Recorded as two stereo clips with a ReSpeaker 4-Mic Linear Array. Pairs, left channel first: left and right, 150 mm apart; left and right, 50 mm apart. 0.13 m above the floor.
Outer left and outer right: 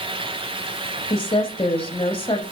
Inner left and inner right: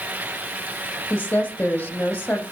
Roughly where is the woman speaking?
Left.